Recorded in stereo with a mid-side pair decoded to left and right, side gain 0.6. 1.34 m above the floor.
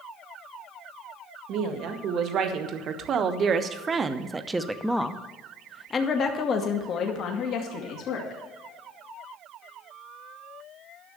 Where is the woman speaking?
65° right, 1.9 m; by 8.4 s 65° left, 2.0 m.